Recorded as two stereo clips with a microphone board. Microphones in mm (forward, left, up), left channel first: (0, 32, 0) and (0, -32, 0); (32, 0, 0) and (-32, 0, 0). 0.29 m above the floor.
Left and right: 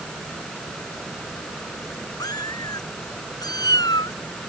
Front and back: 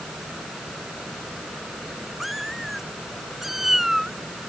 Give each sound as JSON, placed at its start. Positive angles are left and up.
{"t": 2.2, "sound": "a cat meowing", "azimuth_deg": 95}